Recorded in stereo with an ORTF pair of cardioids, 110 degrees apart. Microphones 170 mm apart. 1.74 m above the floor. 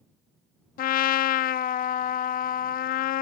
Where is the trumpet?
60° left.